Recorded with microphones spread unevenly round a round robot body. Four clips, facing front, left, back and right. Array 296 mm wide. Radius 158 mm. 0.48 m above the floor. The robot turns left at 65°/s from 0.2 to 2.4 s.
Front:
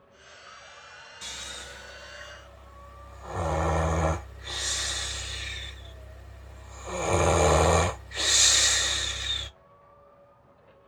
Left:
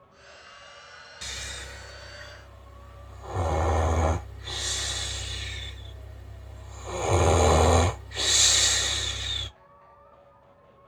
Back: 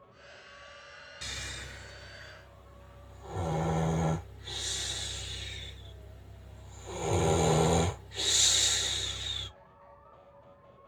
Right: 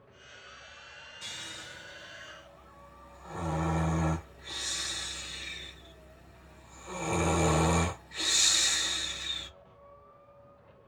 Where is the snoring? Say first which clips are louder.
Left 5 dB, front 1 dB; 125° left, 1.1 m; by 9.5 s 50° left, 1.1 m.